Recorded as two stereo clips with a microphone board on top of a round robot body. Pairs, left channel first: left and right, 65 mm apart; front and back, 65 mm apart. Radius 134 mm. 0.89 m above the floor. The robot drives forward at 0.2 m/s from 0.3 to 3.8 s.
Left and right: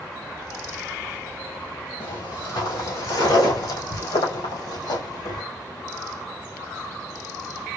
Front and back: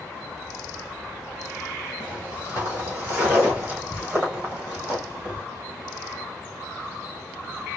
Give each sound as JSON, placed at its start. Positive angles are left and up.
{"t": 2.0, "sound": "footsteps", "azimuth_deg": 115, "distance_m": 1.9}